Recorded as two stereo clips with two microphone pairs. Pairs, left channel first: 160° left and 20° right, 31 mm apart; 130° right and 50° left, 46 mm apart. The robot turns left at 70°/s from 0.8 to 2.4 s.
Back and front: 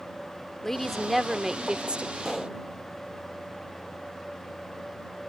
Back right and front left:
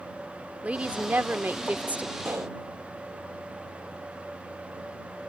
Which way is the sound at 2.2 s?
85° left.